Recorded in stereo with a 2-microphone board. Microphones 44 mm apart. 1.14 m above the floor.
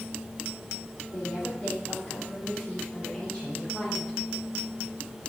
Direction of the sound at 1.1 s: 80° left.